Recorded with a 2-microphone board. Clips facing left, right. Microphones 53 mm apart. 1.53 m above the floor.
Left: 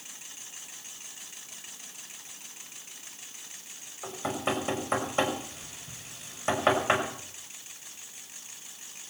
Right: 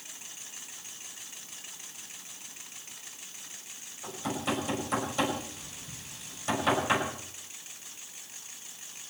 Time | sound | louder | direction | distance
4.0 | knocking | left 2 dB | 35° left (ahead or behind) | 6 m